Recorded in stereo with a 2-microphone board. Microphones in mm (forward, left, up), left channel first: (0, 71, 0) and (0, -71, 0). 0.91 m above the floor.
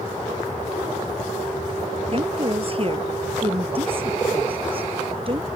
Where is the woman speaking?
40° right (ahead or behind).